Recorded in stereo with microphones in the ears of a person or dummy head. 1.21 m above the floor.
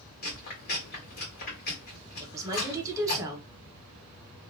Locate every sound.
0.2 s chewing: 50° left (ahead or behind), 1.5 m
2.2 s a woman speaking: 15° right (ahead or behind), 0.8 m